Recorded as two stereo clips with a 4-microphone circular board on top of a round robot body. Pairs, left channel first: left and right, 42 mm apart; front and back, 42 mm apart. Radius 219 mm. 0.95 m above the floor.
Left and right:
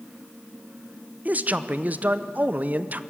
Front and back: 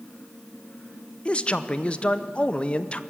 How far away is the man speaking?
About 1.1 m.